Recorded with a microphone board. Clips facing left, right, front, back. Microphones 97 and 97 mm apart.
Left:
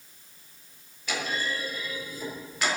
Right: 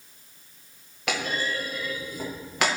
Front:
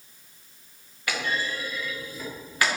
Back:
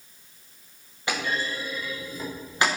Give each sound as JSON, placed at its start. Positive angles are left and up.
{"t": 1.1, "sound": "a clunk", "azimuth_deg": -110, "distance_m": 6.5}